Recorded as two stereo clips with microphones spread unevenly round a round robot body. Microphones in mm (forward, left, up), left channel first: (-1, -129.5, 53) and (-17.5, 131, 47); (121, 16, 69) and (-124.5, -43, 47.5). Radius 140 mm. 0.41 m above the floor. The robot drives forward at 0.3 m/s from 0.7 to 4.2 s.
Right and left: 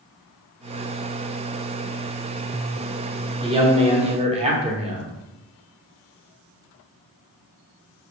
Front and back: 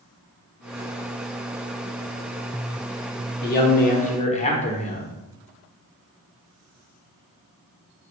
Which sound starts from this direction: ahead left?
A man speaking, at 3.4 s.